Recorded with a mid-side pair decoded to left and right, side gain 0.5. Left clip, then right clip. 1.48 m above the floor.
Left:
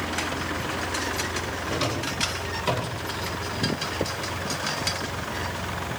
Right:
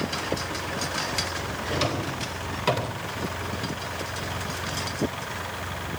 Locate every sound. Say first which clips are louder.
1.7 s a drawer: right 1 dB; 15° right, 4 m